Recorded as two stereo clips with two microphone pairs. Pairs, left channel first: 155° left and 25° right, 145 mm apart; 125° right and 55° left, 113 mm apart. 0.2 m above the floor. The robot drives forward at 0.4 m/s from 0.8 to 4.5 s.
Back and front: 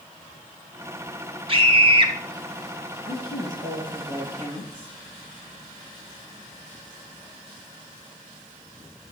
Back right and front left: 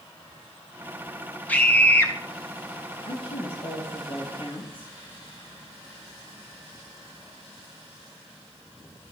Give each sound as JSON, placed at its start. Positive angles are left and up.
{"t": 1.5, "sound": "a scream", "azimuth_deg": -55, "distance_m": 2.0}
{"t": 3.0, "sound": "a woman speaking", "azimuth_deg": -145, "distance_m": 3.5}